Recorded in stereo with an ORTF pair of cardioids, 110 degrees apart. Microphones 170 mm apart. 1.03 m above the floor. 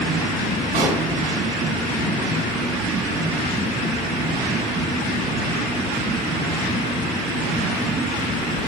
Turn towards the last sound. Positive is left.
turn(degrees=-65)